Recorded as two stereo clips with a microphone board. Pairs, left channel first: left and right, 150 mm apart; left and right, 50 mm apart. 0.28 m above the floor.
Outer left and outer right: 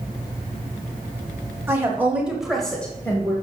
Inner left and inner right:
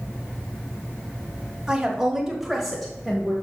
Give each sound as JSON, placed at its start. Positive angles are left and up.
{"t": 1.7, "sound": "a woman speaking", "side_deg": -15, "distance_m": 1.8}